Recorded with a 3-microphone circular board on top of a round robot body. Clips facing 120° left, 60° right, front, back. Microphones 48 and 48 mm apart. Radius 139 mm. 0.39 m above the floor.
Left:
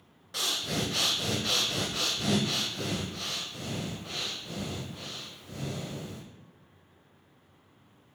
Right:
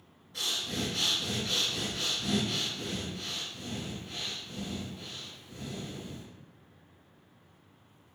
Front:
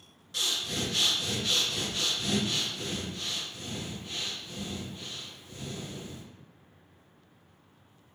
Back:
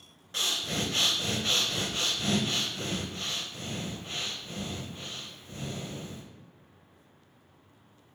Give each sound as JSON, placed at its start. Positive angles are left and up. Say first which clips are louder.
{"t": 0.3, "sound": "breathing", "louder": "left 3 dB, back 1 dB", "azimuth_deg": 125, "distance_m": 0.7}